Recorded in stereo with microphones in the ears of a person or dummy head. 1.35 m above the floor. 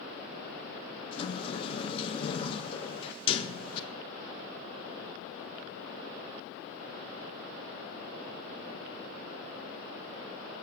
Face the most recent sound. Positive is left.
turn(degrees=30)  # may be behind; listen again after turning